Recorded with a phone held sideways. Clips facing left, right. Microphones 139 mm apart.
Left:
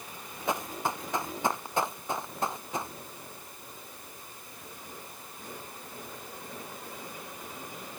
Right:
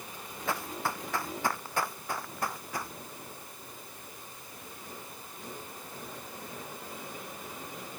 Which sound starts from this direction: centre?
Running footsteps, at 0.5 s.